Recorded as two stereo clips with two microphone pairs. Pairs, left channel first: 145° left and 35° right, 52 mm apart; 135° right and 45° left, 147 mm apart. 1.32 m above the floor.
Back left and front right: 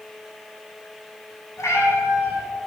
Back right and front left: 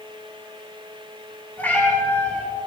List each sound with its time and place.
1.6 s a cat meowing: 145° left, 6.5 m